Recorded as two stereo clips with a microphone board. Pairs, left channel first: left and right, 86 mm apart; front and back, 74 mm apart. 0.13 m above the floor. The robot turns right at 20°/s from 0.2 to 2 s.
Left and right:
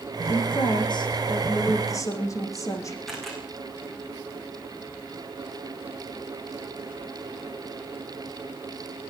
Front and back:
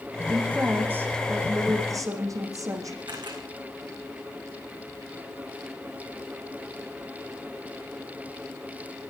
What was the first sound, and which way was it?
A woman speaking, 105° left.